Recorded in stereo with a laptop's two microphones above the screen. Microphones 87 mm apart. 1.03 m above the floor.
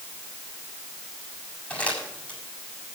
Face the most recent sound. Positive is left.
turn(degrees=15)  # may be behind; listen again after turning